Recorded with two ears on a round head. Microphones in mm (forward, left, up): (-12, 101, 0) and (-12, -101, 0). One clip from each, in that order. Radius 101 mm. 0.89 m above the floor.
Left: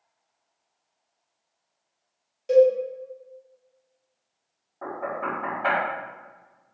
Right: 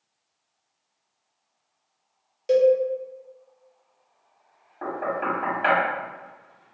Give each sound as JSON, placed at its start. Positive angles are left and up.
{"t": 2.5, "sound": "a cowbell", "side_deg": -15, "distance_m": 0.7}
{"t": 4.8, "sound": "knocking", "side_deg": -70, "distance_m": 1.5}